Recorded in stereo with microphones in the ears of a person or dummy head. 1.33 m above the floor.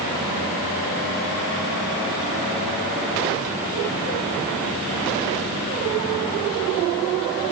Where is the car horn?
No car horn in this recording.